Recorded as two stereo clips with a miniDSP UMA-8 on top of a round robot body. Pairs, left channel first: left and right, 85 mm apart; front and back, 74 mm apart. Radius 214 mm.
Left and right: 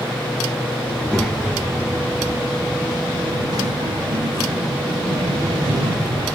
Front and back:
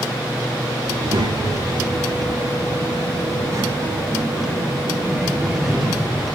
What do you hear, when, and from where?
0.9 s a child speaking: 170° left, 1.6 m; by 6.3 s 95° right, 2 m